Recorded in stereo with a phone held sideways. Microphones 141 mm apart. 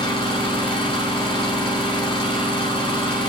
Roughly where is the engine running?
Left.